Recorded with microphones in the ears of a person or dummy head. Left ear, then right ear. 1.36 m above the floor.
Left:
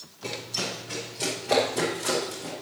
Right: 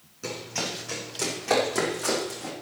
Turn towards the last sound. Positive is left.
turn(degrees=-70)  # may be behind; listen again after turning